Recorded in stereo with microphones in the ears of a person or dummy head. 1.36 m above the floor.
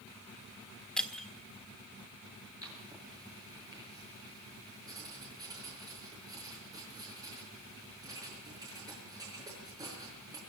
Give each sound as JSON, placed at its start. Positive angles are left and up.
{"t": 1.0, "sound": "breaking glass", "side_deg": 5, "distance_m": 1.4}
{"t": 2.6, "sound": "writing", "side_deg": -20, "distance_m": 7.0}